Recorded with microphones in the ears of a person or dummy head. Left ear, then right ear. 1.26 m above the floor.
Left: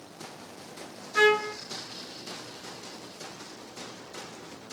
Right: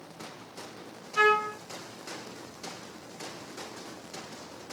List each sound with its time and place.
1.1 s a trumpet: 55° left (ahead or behind), 1.9 m